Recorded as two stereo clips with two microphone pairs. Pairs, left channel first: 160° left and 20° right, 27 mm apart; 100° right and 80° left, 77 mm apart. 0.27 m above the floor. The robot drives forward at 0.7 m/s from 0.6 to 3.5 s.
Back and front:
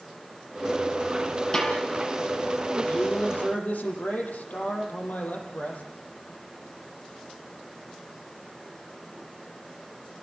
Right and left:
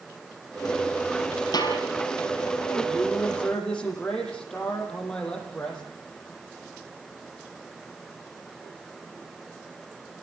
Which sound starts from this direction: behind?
A man speaking, at 2.9 s.